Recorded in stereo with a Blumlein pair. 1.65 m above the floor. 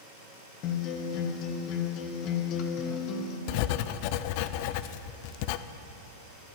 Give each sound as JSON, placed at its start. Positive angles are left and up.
{"t": 0.6, "sound": "a guitar", "azimuth_deg": 40, "distance_m": 1.3}
{"t": 3.5, "sound": "writing", "azimuth_deg": 45, "distance_m": 0.5}